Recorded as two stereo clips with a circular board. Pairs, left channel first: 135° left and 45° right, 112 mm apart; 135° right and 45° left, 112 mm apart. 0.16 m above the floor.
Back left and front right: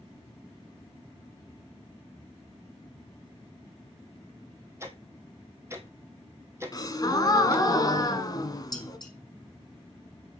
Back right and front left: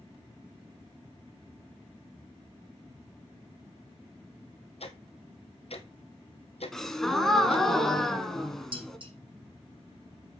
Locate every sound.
4.8 s ticking: 110° right, 1.3 m
6.7 s a gasp: 140° left, 1.2 m
8.7 s dishes clattering: 80° left, 5 m